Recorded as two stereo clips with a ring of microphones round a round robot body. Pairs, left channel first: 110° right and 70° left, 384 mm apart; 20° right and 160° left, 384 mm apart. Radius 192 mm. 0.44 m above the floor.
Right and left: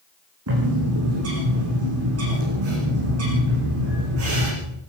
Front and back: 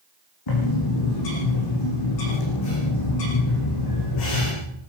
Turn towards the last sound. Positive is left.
turn(degrees=10)